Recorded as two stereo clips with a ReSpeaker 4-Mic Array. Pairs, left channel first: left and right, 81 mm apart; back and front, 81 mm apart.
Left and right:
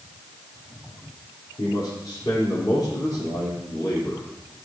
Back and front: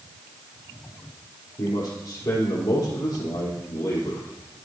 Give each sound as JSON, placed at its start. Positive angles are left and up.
{"t": 1.6, "sound": "a man speaking", "azimuth_deg": 130, "distance_m": 4.5}